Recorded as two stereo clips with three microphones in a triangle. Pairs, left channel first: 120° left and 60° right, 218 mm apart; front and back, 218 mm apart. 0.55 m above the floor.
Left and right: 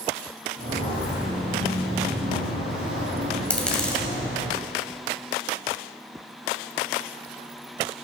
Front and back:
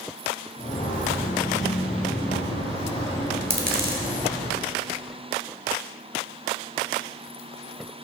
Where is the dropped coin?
155° right, 1.6 m.